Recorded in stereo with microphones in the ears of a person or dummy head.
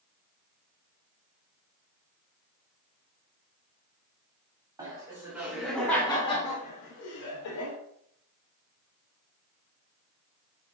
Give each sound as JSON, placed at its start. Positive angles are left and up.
{"t": 4.8, "sound": "laughter", "side_deg": -20, "distance_m": 1.2}